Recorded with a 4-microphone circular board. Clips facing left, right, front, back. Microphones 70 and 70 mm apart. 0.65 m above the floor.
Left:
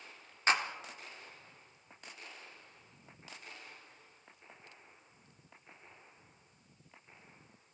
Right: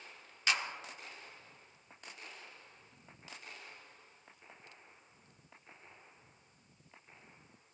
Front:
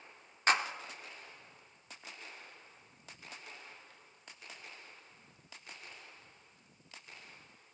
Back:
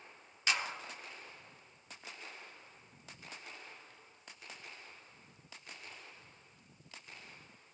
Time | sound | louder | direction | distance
0.5 | a clap | left 4 dB, front 6 dB | 40° left | 1.0 m